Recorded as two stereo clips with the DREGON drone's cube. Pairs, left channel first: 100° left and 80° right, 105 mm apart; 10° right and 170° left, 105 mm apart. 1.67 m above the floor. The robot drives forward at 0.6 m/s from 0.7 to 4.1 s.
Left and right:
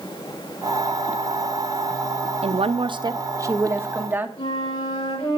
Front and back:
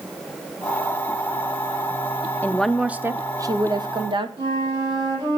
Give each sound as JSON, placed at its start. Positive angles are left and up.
{"t": 2.4, "sound": "a woman speaking", "azimuth_deg": -85, "distance_m": 0.6}
{"t": 4.4, "sound": "a flute", "azimuth_deg": 125, "distance_m": 5.5}